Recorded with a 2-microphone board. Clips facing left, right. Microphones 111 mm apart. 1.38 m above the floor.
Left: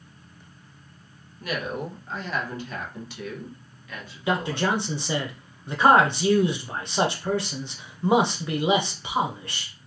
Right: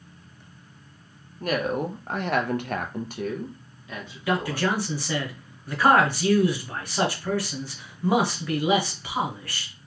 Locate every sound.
1.4 s a woman speaking: 45° right (ahead or behind), 0.9 m; by 4.7 s 15° right (ahead or behind), 1.3 m
4.3 s a man speaking: 25° left (ahead or behind), 0.9 m